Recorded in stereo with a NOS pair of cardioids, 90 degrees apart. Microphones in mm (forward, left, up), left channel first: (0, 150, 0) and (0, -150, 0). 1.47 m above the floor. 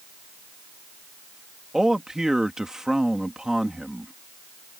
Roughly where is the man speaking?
Ahead.